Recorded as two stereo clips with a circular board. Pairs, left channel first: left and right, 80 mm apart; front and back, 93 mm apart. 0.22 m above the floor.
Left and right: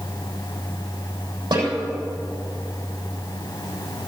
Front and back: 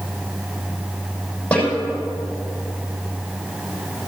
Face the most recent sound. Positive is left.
turn(degrees=-75)